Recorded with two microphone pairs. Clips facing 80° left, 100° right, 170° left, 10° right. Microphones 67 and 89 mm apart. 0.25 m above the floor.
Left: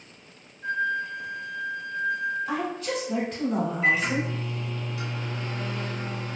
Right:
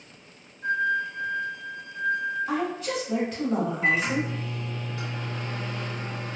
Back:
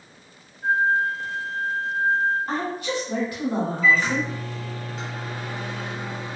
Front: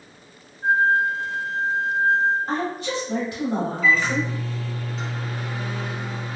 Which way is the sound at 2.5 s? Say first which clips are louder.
Right 1 dB, front 1 dB; 15° right.